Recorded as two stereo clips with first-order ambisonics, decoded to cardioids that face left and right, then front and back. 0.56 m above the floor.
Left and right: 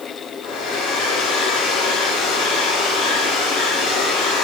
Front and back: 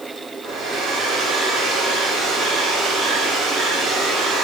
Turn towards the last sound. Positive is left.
turn(degrees=130)